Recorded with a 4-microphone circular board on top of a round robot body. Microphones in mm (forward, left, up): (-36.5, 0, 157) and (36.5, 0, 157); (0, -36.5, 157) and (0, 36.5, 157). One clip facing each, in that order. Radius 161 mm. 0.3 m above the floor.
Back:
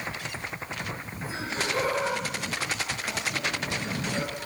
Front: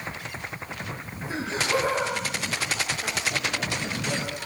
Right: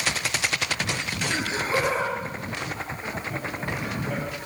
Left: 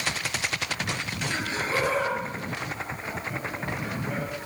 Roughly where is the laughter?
Ahead.